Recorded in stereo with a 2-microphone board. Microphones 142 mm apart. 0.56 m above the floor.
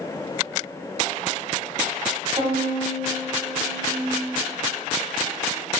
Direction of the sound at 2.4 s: 35° right (ahead or behind).